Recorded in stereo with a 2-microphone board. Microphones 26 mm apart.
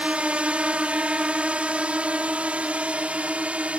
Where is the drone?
60° right (ahead or behind); by 3.8 s 65° right (ahead or behind).